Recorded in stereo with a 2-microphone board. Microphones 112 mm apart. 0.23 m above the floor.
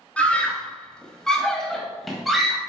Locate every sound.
0.2 s a scream: 10° left (ahead or behind), 1.5 m; by 2.6 s centre (ahead or behind), 1.4 m